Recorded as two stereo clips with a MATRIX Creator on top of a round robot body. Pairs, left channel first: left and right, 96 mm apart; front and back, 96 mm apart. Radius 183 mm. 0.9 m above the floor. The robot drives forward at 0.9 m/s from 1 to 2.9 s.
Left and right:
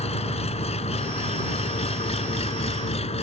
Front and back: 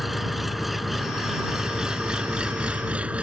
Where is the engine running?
90° left; by 3.2 s 105° left.